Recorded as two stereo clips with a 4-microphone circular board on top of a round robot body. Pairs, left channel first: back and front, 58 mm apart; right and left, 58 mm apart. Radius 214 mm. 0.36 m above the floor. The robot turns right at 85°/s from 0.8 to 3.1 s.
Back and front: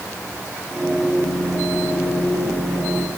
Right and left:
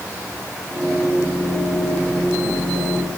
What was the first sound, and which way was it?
Only background noise.